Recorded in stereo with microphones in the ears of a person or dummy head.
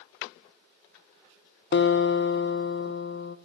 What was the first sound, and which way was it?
A guitar, 50° left (ahead or behind).